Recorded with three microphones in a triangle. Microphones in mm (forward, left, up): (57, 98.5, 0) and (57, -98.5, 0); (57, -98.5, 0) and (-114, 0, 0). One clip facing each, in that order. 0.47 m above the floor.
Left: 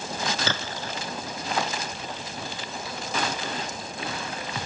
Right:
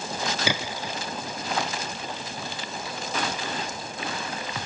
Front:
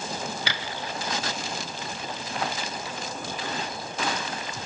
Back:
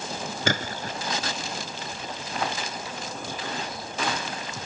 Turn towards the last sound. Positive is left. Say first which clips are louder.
# right 2 dB, back 5 dB
turn(degrees=-170)